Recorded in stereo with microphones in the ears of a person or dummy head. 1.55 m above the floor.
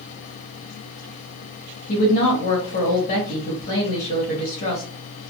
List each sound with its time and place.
1.9 s a woman speaking: 55° left (ahead or behind), 1.1 m